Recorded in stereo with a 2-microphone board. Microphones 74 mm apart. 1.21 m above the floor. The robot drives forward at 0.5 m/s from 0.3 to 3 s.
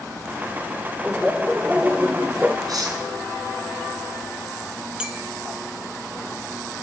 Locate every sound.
1.0 s laughter: 10° right (ahead or behind), 1.3 m; by 2.6 s 20° right (ahead or behind), 0.6 m
2.7 s cutlery clinking: 60° right (ahead or behind), 8.5 m
5.0 s a clink: 10° right (ahead or behind), 2.5 m